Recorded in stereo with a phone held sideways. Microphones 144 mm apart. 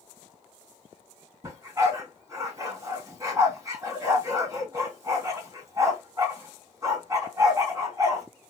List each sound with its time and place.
1.4 s a dog barking: 25° right (ahead or behind), 3 m